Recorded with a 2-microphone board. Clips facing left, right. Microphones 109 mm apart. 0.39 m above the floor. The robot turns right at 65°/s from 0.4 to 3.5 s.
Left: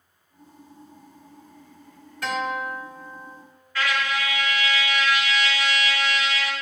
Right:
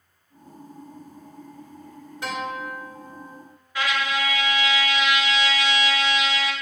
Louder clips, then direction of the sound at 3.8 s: Even; 15° right (ahead or behind).